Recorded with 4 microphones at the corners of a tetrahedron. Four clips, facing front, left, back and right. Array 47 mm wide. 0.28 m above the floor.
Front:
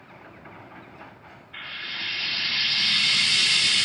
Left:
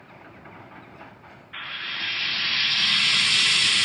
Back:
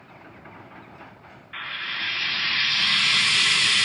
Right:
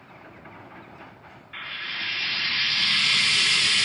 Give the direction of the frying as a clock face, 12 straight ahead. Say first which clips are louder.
Left 1 dB, back 3 dB; 6 o'clock.